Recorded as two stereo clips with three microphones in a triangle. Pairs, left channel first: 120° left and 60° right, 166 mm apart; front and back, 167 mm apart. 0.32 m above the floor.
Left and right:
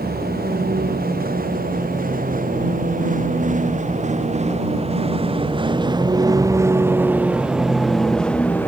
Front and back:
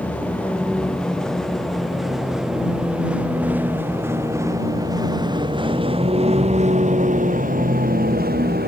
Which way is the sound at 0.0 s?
80° right.